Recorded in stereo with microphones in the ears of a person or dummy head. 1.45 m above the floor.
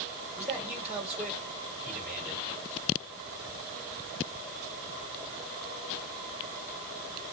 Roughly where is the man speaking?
Centre.